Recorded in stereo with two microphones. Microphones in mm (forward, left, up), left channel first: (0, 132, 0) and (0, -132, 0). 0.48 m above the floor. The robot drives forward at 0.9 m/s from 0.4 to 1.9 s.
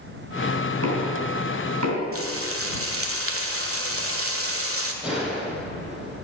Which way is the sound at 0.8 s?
65° right (ahead or behind).